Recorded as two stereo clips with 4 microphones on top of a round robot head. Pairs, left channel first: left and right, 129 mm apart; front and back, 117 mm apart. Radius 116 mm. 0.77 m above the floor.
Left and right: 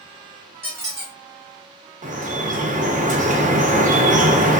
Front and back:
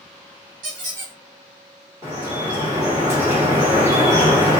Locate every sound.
0.6 s a squeak: 160° right, 1.5 m
2.0 s dripping: 110° right, 1.0 m